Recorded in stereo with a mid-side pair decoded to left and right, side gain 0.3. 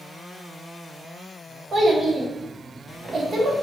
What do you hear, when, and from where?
1.7 s a child speaking: 60° right, 1.1 m